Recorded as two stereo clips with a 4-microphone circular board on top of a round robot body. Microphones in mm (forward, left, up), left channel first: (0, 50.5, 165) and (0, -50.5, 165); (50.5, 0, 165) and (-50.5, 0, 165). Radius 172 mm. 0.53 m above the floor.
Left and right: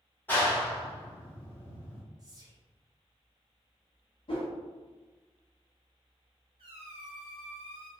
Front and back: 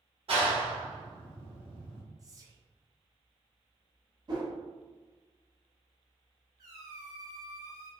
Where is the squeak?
125° right, 0.6 m.